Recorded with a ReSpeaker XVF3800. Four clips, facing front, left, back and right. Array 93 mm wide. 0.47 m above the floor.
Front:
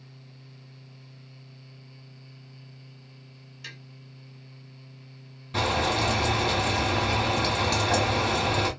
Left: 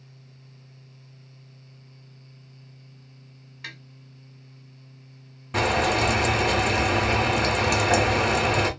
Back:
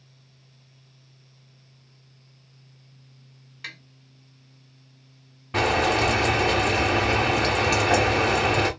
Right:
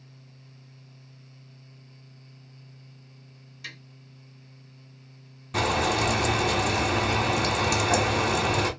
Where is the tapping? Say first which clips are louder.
Left 2 dB, back 5 dB; 140° left, 1.9 m.